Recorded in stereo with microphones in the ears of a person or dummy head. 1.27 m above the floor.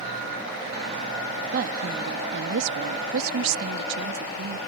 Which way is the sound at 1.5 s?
50° right (ahead or behind).